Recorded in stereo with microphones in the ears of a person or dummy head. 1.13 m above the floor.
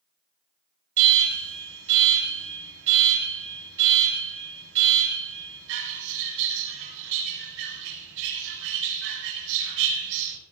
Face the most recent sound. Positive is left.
turn(degrees=-65)  # may be behind; listen again after turning